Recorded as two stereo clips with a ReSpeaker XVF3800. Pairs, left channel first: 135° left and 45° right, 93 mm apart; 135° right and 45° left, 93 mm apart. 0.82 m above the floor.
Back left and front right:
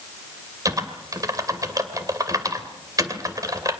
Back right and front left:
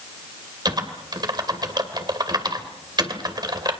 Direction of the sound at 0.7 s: 5° left.